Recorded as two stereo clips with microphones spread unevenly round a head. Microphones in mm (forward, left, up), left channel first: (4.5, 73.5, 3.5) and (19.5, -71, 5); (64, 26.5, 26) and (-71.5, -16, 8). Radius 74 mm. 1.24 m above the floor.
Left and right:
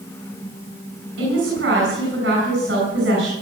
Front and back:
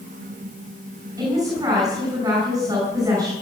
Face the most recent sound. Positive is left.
turn(degrees=-95)